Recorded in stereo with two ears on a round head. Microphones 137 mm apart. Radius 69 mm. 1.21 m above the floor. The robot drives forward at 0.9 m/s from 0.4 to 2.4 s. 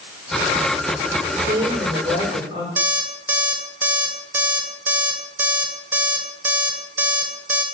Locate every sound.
1.3 s a woman speaking: 45° right (ahead or behind), 3 m; by 2.7 s 35° right (ahead or behind), 4 m
2.8 s an alarm clock: 15° right (ahead or behind), 2.5 m